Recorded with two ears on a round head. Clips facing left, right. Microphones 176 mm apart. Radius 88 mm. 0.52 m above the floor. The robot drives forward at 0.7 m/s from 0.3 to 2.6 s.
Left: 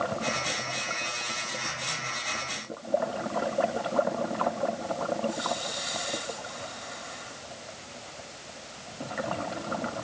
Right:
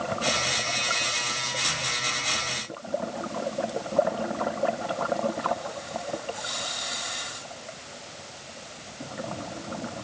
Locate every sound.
Only background noise.